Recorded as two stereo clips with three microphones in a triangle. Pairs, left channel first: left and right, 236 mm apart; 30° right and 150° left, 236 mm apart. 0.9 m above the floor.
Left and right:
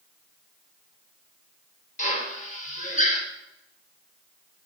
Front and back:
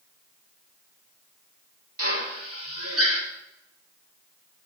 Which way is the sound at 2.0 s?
145° left.